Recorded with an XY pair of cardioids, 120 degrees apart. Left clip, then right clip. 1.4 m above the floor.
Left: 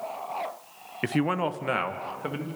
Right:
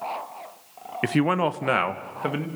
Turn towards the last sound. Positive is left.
turn(degrees=-30)